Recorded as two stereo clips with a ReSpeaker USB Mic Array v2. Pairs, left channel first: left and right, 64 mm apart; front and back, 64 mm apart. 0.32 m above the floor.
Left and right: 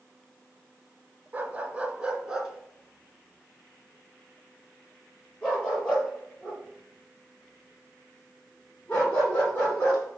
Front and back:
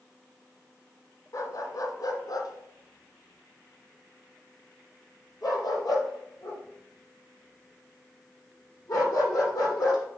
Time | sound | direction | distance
1.3 | a dog barking | 25° right | 1.4 m